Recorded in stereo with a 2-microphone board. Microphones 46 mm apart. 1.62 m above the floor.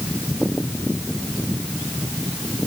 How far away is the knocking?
No knocking in this recording.